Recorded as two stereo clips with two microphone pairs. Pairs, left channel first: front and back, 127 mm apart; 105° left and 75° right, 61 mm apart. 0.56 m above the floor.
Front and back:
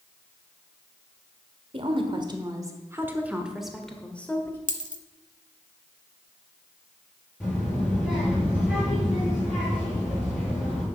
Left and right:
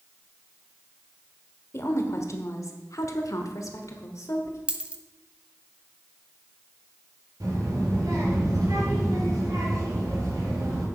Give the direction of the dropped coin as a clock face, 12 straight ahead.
12 o'clock.